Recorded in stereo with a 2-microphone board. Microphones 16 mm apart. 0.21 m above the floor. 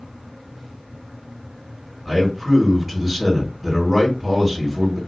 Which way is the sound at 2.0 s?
Centre (ahead or behind).